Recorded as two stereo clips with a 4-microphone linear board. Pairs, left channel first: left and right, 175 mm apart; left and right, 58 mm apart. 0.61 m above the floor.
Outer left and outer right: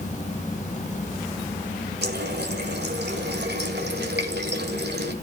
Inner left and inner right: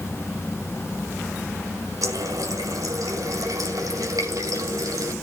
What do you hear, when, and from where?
2.0 s a running tap: 75° right (ahead or behind), 1.8 m